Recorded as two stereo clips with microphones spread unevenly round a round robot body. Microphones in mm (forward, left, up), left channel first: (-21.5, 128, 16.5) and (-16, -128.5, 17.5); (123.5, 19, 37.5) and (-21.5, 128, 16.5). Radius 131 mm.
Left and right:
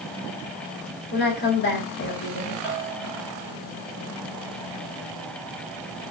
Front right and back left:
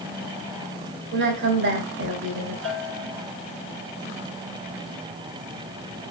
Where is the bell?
145° left, 3.5 m.